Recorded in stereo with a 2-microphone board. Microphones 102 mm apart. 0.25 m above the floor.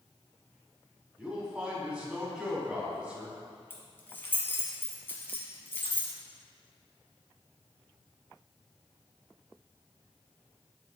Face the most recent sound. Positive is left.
turn(degrees=20)  # may be behind; listen again after turning